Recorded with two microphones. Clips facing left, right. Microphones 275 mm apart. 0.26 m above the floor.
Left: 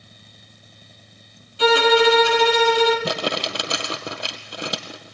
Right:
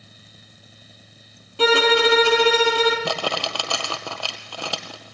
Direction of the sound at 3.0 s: 20° left (ahead or behind).